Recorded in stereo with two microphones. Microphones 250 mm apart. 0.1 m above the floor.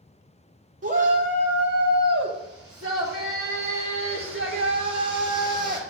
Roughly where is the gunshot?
I don't hear a gunshot.